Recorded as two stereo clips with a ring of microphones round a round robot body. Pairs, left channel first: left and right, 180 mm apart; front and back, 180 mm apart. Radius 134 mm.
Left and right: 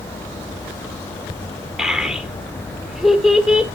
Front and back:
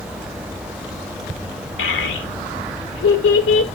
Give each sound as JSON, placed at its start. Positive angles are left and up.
{"t": 1.8, "sound": "a child speaking", "azimuth_deg": 0, "distance_m": 1.5}